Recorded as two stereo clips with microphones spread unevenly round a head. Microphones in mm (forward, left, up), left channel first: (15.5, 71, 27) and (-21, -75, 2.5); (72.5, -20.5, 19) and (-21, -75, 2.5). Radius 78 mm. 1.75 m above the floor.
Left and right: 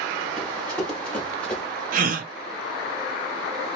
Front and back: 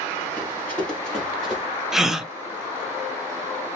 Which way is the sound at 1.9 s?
60° right.